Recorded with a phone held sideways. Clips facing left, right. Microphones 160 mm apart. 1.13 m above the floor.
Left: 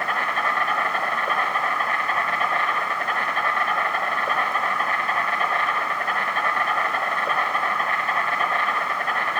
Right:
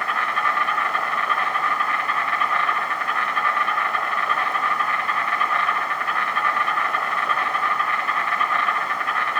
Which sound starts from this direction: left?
An insect, at 0.0 s.